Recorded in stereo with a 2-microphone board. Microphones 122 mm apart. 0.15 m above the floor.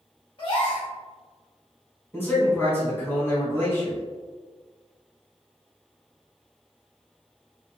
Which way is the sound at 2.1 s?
20° left (ahead or behind).